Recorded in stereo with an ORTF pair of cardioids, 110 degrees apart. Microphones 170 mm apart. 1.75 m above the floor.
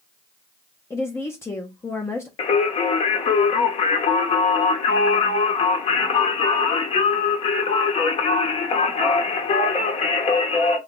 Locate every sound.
0.9 s a woman speaking: 15° left, 0.5 m
2.4 s singing: 40° left, 0.7 m